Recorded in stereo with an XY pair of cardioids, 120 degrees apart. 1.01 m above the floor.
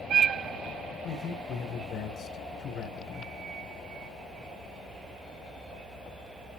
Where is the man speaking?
55° left, 5 m.